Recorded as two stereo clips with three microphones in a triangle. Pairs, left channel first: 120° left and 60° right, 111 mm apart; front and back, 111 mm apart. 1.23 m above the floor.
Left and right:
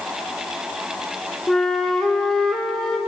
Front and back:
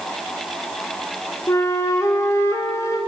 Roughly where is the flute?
Ahead left.